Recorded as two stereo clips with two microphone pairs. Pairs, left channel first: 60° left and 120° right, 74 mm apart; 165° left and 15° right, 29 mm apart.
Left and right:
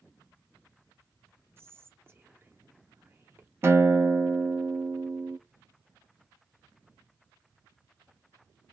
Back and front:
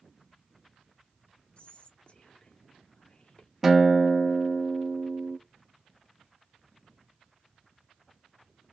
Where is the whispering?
160° right, 0.6 m.